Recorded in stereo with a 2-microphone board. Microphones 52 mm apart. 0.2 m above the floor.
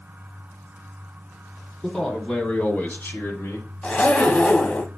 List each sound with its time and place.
1.8 s a man speaking: 5° left (ahead or behind), 1.1 m; by 3.7 s 50° left (ahead or behind), 1.6 m
3.8 s a zipper: 25° left (ahead or behind), 0.6 m